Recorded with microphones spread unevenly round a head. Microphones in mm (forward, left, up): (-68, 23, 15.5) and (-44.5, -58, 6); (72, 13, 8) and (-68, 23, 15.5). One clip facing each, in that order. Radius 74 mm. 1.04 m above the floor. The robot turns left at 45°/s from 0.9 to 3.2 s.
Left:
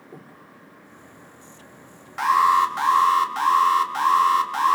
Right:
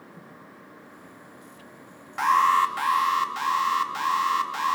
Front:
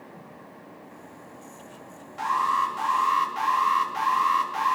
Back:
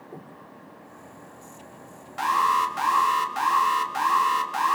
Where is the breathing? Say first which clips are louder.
Left 3 dB, back 3 dB; 130° left, 3.5 m.